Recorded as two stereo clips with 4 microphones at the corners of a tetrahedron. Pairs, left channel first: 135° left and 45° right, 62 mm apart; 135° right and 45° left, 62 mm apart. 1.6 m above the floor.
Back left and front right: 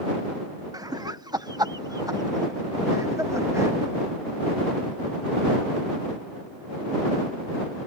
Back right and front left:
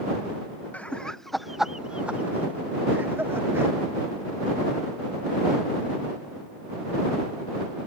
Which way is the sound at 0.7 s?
65° right.